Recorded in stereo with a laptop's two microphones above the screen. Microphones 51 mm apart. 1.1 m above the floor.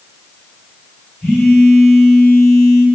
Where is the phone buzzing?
5° right (ahead or behind), 1.3 m.